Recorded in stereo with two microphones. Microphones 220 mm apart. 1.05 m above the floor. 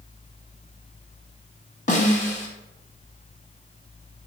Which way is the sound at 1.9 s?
35° left (ahead or behind).